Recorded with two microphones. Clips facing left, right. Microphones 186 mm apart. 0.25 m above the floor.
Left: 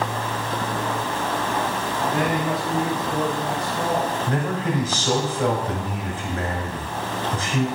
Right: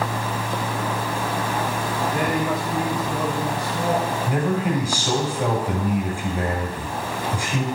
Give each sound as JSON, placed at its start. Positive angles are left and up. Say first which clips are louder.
{"t": 2.0, "sound": "a man speaking", "louder": "left 1 dB", "side_deg": -35, "distance_m": 2.0}
{"t": 4.3, "sound": "a man speaking", "louder": "right 2 dB", "side_deg": -10, "distance_m": 1.1}